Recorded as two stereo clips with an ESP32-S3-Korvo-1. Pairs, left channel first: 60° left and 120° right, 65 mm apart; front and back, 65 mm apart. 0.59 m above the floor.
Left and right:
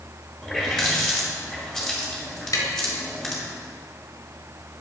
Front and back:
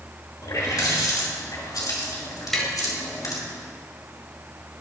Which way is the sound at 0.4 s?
25° right.